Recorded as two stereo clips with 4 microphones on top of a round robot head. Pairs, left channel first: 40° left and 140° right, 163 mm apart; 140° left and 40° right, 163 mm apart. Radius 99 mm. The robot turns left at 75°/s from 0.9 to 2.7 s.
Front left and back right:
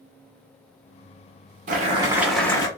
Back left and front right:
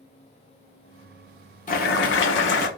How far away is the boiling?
About 1.2 m.